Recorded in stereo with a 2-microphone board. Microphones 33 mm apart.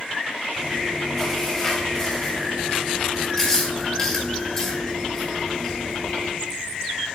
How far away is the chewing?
About 3 m.